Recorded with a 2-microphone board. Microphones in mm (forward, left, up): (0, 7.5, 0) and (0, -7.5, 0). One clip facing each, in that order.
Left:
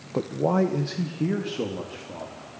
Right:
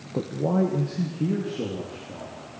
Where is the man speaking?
45° left (ahead or behind), 1.0 m; by 2.4 s 70° left (ahead or behind), 3 m.